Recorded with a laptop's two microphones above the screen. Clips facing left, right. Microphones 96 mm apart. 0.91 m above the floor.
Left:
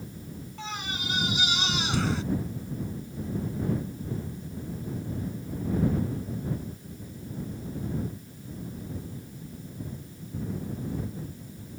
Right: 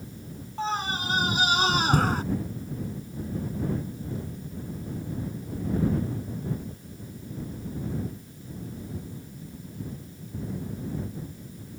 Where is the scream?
35° right (ahead or behind); by 2.2 s 45° right (ahead or behind).